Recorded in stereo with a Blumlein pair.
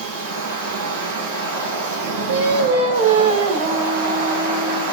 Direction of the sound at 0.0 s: 55° right.